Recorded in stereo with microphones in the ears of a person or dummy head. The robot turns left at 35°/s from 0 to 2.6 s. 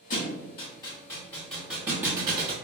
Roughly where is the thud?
Left.